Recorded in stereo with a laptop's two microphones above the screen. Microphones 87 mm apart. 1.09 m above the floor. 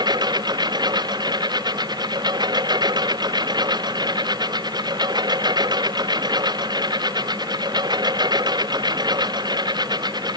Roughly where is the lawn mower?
Right.